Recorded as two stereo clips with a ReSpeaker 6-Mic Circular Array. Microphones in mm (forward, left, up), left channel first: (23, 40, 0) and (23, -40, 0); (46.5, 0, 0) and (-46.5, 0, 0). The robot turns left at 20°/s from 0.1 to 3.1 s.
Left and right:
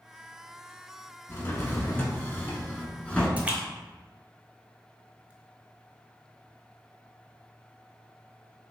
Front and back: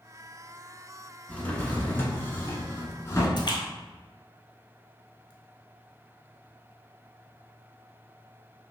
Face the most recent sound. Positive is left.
turn(degrees=-20)